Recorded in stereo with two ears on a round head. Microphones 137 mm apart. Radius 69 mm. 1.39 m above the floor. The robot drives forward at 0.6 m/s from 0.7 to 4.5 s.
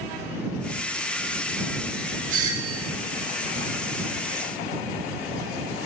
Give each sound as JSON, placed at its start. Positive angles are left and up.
{"t": 2.3, "sound": "a doorbell", "side_deg": -55, "distance_m": 1.4}